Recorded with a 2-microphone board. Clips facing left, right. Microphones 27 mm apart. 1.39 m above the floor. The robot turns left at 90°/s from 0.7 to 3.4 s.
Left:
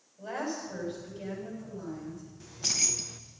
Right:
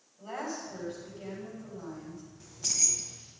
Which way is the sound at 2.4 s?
165° left.